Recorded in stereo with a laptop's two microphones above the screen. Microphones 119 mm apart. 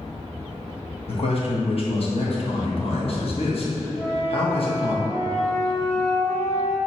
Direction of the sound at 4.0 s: 20° left (ahead or behind).